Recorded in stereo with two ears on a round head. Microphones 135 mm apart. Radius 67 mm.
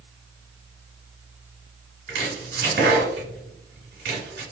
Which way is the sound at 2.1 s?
75° right (ahead or behind).